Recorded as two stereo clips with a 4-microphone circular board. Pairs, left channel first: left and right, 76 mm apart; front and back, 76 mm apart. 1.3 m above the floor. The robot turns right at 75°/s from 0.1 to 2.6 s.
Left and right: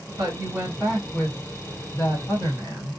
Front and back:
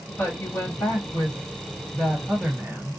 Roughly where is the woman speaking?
Ahead right.